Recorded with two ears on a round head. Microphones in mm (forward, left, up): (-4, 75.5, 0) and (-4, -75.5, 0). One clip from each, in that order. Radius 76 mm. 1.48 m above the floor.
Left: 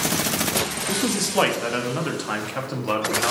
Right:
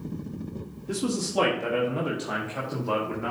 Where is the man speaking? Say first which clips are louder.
Left 6 dB; 20° left (ahead or behind), 1.1 m; by 3.3 s 75° left (ahead or behind), 1.6 m.